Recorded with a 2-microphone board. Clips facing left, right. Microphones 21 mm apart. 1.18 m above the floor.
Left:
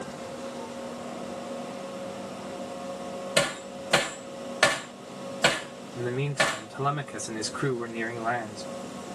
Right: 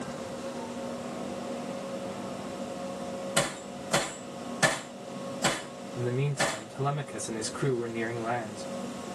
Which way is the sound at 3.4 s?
55° left (ahead or behind).